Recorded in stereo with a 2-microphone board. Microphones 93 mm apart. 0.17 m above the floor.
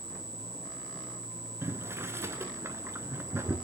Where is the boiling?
25° right (ahead or behind), 0.9 m.